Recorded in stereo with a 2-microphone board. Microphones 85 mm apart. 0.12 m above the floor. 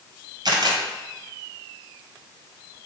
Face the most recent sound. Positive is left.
turn(degrees=-55)  # may be behind; listen again after turning